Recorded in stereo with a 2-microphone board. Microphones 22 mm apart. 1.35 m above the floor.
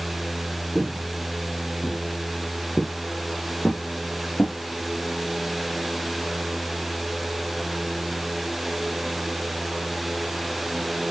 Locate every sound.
0.8 s footsteps: 5° right (ahead or behind), 1.4 m; by 4.5 s 55° left (ahead or behind), 3 m